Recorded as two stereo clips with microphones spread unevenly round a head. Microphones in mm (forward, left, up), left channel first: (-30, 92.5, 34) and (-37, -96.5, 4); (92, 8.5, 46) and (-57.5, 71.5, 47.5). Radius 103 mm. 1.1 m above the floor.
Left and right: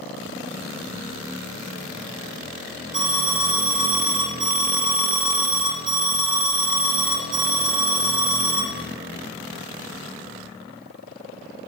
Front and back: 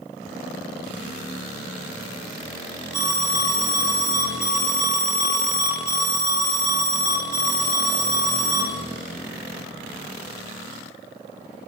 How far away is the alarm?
About 4.5 m.